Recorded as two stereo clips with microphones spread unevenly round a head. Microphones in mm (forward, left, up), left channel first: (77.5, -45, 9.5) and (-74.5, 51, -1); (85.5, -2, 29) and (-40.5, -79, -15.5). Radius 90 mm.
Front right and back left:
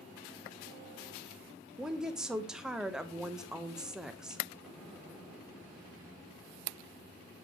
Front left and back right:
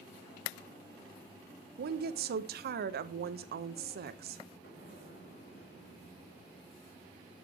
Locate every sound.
1.8 s a woman speaking: 125° right, 0.9 m
4.6 s an explosion: 60° left, 3.5 m